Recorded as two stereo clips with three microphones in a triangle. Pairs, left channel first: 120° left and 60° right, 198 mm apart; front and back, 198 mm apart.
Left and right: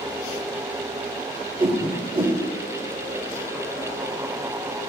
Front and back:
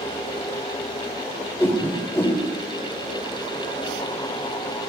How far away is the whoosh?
About 1.4 m.